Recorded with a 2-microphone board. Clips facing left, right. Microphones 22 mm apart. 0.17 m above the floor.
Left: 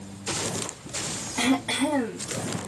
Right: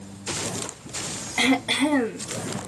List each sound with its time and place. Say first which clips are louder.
1.4 s throat clearing: right 3 dB; 35° right (ahead or behind), 0.5 m